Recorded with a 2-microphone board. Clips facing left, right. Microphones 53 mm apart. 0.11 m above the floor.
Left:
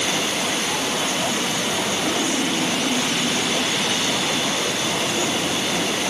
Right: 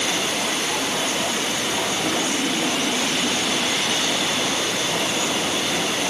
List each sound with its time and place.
Only background noise.